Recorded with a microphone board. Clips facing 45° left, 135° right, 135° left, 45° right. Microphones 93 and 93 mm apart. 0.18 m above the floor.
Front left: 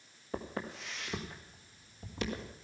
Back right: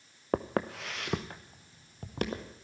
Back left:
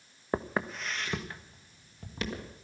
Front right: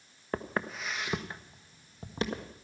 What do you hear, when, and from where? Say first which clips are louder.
0.3 s footsteps: back right 9 dB, back left 2 dB; 150° right, 0.8 m; by 2.6 s 100° right, 2.5 m